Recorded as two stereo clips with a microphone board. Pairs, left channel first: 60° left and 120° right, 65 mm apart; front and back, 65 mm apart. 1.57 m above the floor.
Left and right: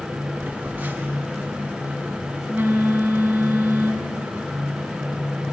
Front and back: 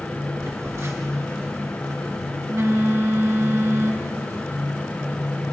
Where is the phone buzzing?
165° right, 1.2 m.